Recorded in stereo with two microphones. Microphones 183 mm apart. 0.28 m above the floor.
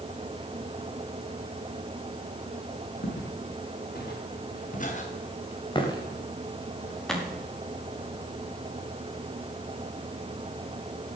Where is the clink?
I don't hear a clink.